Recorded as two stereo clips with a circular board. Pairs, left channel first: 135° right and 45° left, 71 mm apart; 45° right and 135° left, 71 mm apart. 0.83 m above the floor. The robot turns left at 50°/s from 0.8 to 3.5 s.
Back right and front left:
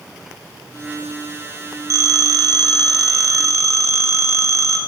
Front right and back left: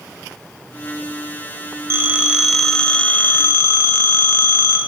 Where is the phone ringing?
85° left, 1.6 m; by 4.8 s 5° left, 1.6 m.